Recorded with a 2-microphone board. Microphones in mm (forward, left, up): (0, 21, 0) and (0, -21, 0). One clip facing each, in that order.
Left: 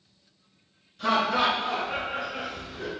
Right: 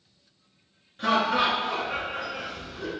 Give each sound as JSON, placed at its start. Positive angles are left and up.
{"t": 1.0, "sound": "laughter", "side_deg": -45, "distance_m": 1.9}